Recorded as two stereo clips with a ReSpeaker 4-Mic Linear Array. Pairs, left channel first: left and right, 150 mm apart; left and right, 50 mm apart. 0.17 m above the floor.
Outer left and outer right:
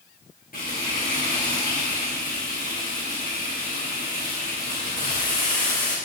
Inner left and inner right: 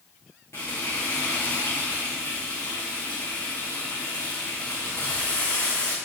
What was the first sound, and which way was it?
Frying, 65° left (ahead or behind).